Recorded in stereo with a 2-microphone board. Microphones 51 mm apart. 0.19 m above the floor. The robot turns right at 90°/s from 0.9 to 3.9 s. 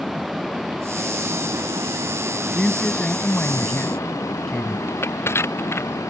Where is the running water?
175° right; by 6.1 s 95° left.